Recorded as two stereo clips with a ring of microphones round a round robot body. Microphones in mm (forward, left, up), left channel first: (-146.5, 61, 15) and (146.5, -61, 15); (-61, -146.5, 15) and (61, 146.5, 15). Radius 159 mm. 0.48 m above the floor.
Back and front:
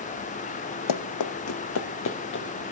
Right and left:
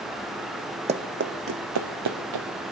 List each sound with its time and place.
0.9 s running footsteps: 135° left, 1.0 m; by 2.6 s 100° left, 2 m